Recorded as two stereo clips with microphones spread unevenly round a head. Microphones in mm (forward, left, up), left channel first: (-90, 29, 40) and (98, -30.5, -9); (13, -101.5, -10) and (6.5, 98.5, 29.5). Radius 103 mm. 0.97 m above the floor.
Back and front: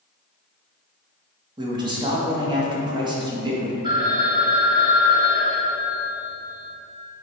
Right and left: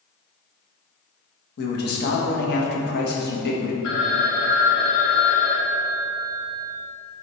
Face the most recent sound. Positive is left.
turn(degrees=-90)